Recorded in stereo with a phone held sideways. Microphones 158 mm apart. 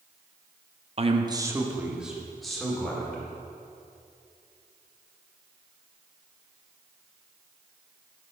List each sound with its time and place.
1.0 s a man speaking: 40° right (ahead or behind), 0.8 m; by 3.2 s 5° left (ahead or behind), 3 m